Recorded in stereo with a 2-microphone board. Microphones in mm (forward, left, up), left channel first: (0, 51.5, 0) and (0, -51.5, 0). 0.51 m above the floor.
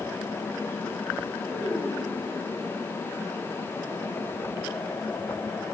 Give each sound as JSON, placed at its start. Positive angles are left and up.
{"t": 1.5, "sound": "a child speaking", "side_deg": 5, "distance_m": 6.0}